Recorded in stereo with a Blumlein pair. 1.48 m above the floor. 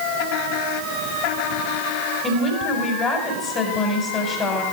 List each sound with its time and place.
2.2 s a woman speaking: 25° left, 5 m